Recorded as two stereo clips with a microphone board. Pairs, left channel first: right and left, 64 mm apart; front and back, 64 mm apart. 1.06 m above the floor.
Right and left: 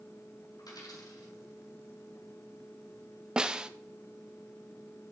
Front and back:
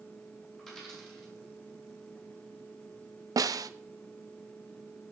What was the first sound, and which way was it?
A dropped coin, 85° right.